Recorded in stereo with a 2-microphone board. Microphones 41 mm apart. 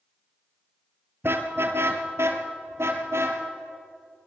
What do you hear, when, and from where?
1.2 s a car horn: 65° right (ahead or behind), 2 m; by 3.4 s 75° right (ahead or behind), 3 m